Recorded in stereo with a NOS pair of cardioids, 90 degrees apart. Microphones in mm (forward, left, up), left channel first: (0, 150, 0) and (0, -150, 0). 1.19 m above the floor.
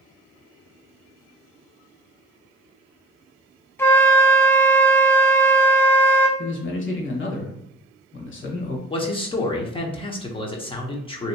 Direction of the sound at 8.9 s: 20° left.